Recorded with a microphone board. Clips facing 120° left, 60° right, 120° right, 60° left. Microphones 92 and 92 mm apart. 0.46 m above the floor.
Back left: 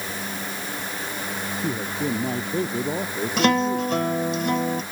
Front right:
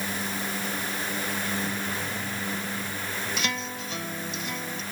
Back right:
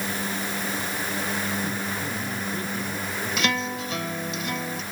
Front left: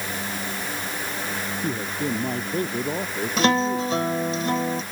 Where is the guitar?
110° left.